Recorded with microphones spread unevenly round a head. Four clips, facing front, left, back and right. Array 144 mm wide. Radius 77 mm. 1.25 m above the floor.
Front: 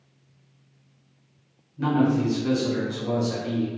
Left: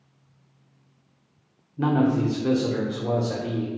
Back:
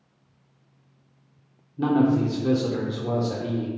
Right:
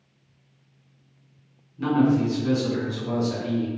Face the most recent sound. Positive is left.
turn(degrees=120)